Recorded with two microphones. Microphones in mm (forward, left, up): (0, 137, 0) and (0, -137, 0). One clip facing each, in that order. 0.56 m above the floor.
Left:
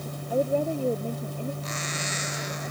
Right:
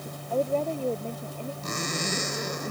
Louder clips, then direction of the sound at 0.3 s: Left 2 dB; 15° left (ahead or behind).